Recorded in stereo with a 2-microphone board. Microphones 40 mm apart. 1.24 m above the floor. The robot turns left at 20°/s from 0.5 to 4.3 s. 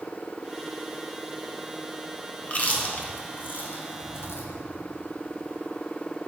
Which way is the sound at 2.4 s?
35° left (ahead or behind).